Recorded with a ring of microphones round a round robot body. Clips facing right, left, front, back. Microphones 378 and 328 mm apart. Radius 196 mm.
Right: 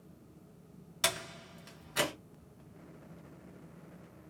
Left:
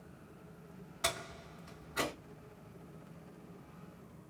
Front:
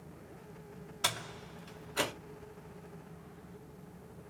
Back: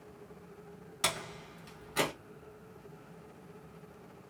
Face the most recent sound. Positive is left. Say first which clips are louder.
# right 2 dB, back 4 dB
turn(degrees=-125)